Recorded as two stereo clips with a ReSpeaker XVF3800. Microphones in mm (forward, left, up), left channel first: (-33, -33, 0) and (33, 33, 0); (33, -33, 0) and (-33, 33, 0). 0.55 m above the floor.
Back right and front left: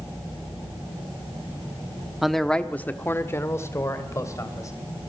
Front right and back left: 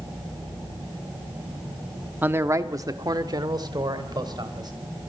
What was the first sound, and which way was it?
A man speaking, 125° left.